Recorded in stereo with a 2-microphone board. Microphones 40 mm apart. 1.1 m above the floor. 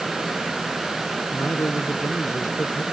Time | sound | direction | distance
1.3 | a man speaking | 85° left | ?